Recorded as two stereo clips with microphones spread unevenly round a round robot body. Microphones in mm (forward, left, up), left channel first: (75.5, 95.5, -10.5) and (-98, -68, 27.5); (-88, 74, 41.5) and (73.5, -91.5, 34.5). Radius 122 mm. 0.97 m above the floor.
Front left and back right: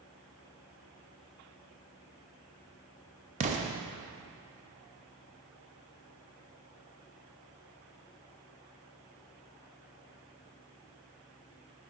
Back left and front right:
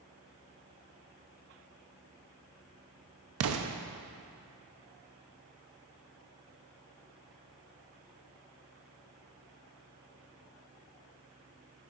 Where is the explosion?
75° right, 0.6 m.